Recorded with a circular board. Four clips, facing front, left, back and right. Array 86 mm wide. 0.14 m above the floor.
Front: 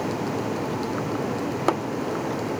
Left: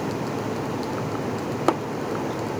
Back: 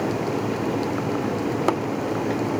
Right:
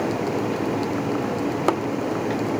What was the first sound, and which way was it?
Only background noise.